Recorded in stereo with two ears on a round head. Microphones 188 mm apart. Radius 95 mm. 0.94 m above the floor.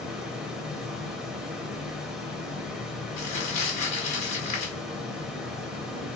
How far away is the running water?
About 1.3 m.